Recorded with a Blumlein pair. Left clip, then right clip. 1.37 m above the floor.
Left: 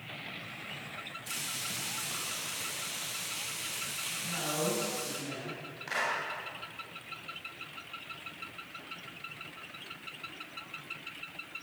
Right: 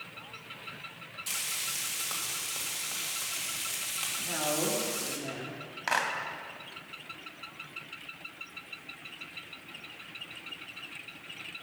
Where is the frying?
65° right, 2.5 m.